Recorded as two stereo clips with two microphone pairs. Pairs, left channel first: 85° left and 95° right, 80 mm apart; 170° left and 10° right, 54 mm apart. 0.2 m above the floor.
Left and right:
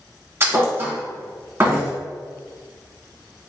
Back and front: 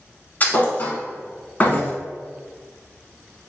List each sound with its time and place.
0.4 s a thud: 140° right, 0.8 m